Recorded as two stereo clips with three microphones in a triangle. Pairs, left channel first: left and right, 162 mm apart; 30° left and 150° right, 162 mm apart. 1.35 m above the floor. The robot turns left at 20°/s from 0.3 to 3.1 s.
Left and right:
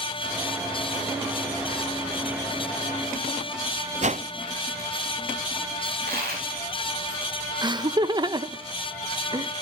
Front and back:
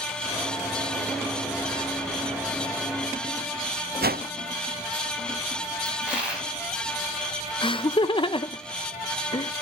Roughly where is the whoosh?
Behind right.